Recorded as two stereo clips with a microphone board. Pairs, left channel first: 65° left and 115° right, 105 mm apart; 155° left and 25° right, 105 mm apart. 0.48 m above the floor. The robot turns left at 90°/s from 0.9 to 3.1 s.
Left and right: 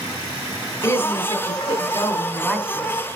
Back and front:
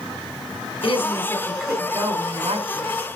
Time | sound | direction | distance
0.8 | a woman speaking | 125° left | 3 m